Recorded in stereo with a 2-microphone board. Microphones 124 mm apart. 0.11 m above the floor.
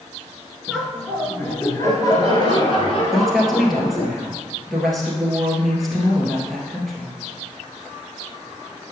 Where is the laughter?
Centre (ahead or behind), 1.3 m; by 4.1 s 55° left (ahead or behind), 2.5 m.